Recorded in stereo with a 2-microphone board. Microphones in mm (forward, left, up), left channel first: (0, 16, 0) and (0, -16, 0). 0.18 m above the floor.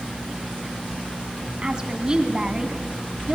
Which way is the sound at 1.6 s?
25° right (ahead or behind).